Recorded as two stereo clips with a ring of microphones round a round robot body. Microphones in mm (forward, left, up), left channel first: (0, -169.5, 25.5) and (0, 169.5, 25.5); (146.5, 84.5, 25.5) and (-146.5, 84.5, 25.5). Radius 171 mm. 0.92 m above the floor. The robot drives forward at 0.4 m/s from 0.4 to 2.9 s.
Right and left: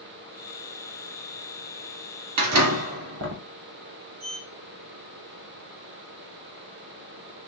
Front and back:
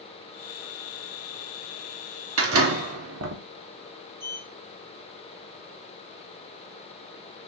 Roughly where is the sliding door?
Behind left.